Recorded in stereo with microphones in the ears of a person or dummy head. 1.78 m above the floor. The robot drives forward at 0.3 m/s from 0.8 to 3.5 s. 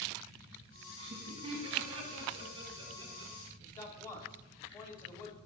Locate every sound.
1.0 s laughter: 30° right (ahead or behind), 1.6 m; by 3.3 s 20° right (ahead or behind), 2.5 m
3.6 s a man speaking: 20° left (ahead or behind), 0.8 m